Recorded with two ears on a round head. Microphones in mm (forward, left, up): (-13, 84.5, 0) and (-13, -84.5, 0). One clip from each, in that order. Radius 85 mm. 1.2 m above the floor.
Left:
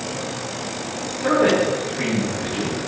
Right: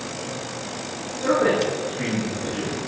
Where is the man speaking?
30° left (ahead or behind), 3 m.